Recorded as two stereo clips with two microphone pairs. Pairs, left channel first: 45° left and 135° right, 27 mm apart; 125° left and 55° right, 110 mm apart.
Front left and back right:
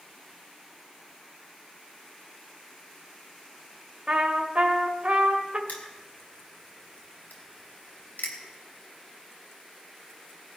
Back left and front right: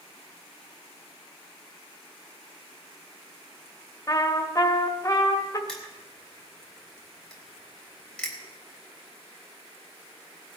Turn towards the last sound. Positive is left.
turn(degrees=45)